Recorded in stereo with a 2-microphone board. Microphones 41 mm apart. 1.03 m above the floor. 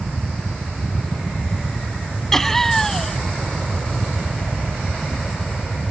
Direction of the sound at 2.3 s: 5° left (ahead or behind).